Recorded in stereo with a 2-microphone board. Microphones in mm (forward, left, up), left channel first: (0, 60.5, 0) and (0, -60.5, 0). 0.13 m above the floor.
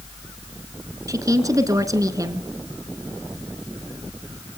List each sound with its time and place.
1.1 s a woman speaking: 30° right (ahead or behind), 1.2 m